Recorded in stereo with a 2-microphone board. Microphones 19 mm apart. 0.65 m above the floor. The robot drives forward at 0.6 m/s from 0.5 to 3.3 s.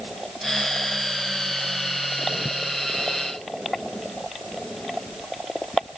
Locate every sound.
Only background noise.